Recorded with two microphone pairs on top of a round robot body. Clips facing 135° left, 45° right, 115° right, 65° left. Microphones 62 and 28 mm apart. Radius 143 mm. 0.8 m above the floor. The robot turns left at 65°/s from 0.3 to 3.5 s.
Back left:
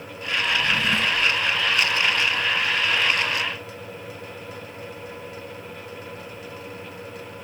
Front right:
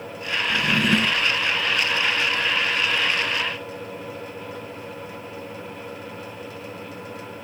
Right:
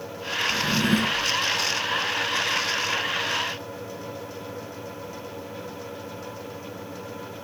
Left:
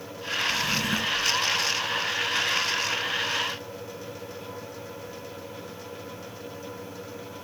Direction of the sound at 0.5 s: 50° right.